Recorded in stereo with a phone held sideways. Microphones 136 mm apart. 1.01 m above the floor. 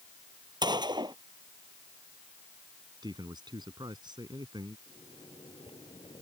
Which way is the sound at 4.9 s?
35° left (ahead or behind).